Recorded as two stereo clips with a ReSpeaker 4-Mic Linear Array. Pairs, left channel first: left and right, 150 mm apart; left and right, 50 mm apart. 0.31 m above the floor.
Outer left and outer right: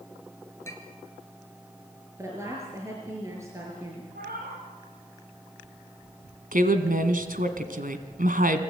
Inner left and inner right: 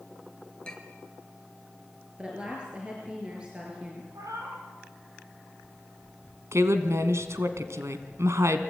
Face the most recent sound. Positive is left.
turn(degrees=-70)  # may be behind; listen again after turning